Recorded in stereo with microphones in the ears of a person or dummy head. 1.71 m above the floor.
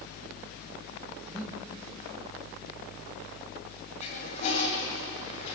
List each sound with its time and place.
1.2 s breathing: 15° right (ahead or behind), 3 m
4.0 s a toilet flushing: 40° left (ahead or behind), 7 m